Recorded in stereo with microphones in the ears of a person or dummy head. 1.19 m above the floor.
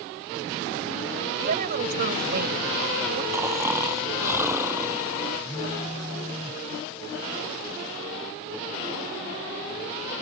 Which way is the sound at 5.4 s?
15° right (ahead or behind).